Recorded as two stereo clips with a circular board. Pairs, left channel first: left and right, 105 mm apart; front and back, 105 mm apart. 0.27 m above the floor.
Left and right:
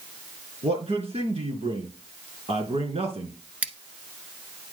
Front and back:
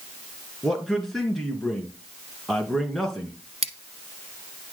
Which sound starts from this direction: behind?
Scissors, at 3.6 s.